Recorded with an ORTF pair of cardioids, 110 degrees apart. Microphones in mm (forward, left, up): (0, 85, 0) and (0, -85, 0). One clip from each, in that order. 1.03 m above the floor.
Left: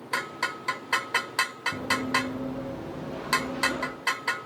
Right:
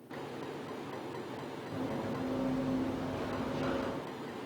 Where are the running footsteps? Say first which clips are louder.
Left 10 dB; 45° left, 5 m.